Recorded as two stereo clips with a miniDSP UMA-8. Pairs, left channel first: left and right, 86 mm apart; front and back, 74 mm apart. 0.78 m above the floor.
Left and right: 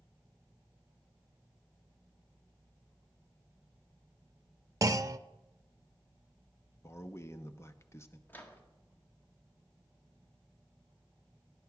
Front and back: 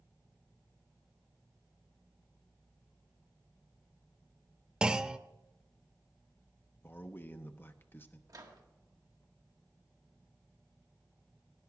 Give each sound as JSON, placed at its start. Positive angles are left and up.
{"t": 4.8, "sound": "a clunk", "azimuth_deg": -105, "distance_m": 0.5}
{"t": 6.8, "sound": "a man speaking", "azimuth_deg": 45, "distance_m": 0.8}
{"t": 8.3, "sound": "a microwave", "azimuth_deg": 155, "distance_m": 1.6}